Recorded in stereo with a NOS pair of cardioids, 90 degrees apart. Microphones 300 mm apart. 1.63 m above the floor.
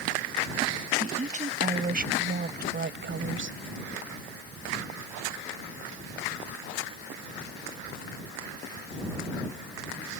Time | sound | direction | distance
1.0 | a woman speaking | 20° right | ?